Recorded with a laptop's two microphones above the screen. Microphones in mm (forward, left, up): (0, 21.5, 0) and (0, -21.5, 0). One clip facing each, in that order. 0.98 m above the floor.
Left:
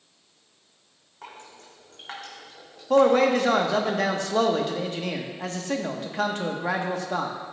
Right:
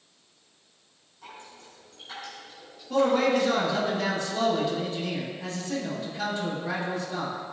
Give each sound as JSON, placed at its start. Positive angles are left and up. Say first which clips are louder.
{"t": 1.2, "sound": "dripping", "louder": "left 2 dB", "side_deg": 60, "distance_m": 3.0}
{"t": 2.9, "sound": "a man speaking", "louder": "left 4 dB", "side_deg": 65, "distance_m": 1.3}